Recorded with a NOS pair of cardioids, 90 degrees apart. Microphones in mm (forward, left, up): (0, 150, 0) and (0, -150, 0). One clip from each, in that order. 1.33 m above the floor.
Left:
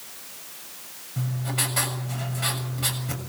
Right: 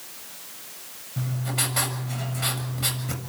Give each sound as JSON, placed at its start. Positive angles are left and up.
{"t": 1.2, "sound": "writing", "azimuth_deg": -5, "distance_m": 7.0}